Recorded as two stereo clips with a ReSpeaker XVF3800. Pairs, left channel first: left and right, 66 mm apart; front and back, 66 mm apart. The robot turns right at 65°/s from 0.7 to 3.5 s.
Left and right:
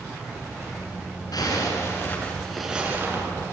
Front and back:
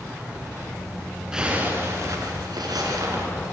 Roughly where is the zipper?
Left.